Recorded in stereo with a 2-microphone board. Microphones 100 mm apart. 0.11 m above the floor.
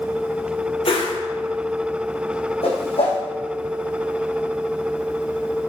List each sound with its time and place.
0.8 s a whoosh: 65° left (ahead or behind), 2 m
2.6 s a whoosh: 75° left (ahead or behind), 3.5 m